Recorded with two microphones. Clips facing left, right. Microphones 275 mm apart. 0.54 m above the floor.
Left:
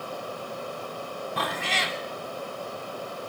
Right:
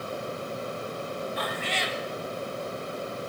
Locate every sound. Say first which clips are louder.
1.4 s a cat meowing: even; 80° left, 1.1 m